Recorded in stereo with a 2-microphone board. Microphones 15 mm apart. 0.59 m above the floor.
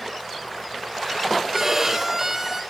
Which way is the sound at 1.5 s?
30° right (ahead or behind).